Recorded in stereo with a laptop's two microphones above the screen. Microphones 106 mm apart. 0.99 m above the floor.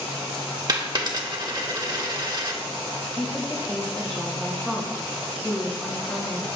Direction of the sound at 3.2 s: 15° left (ahead or behind).